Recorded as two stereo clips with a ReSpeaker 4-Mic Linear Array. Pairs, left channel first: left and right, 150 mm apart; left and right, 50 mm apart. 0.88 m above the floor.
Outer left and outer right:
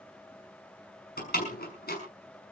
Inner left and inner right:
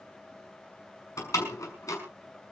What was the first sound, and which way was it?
A door slam, 75° left (ahead or behind).